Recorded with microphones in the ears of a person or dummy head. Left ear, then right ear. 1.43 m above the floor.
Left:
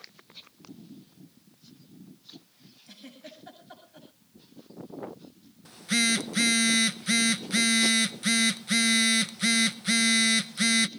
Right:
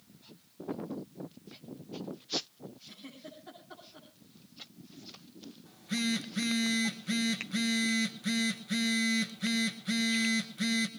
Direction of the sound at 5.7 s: 70° left (ahead or behind).